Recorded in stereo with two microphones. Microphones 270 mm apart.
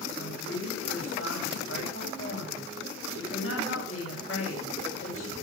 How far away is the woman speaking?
About 9 m.